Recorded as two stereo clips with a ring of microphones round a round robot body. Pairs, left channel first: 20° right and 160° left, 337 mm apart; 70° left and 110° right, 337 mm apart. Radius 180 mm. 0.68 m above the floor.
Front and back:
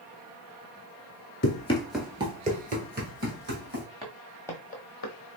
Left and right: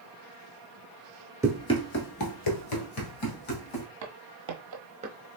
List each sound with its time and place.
1.4 s running footsteps: 40° right, 0.7 m; by 3.9 s 95° left, 2.5 m
4.0 s footsteps: 130° right, 1.1 m; by 5.3 s 35° right, 1.0 m